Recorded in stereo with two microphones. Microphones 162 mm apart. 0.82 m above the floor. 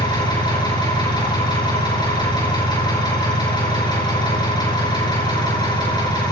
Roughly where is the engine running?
Left.